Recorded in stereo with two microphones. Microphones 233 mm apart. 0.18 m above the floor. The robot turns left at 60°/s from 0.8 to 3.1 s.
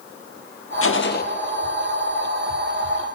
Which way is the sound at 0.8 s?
65° left (ahead or behind).